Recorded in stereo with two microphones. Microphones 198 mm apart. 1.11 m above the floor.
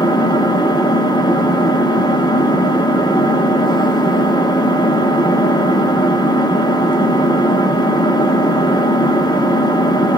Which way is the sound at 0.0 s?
20° left (ahead or behind).